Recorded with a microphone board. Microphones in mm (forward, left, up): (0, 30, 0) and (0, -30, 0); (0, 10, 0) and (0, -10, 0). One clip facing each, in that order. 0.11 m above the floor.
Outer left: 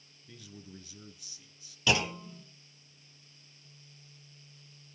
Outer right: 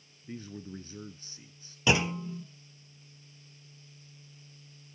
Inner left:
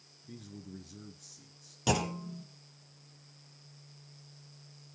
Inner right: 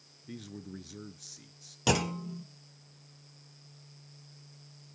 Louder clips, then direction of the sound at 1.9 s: Outer right 2 dB, inner right 2 dB; 20° right (ahead or behind).